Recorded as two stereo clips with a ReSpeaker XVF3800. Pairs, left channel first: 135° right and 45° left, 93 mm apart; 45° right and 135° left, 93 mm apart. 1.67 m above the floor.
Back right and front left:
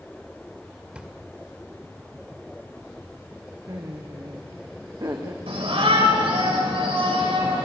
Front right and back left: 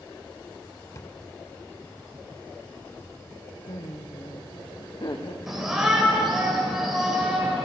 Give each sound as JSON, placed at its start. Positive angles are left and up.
{"t": 0.9, "sound": "a drawer", "azimuth_deg": -25, "distance_m": 1.6}
{"t": 3.7, "sound": "laughter", "azimuth_deg": -5, "distance_m": 1.4}
{"t": 5.5, "sound": "a shout", "azimuth_deg": 50, "distance_m": 7.5}